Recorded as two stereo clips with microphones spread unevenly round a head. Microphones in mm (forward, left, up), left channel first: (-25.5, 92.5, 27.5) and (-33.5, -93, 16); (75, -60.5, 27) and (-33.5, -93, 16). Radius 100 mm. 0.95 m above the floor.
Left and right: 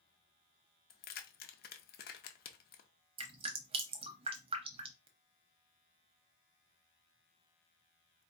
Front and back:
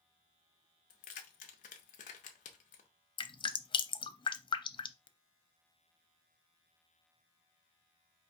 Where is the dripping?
25° right, 0.6 m.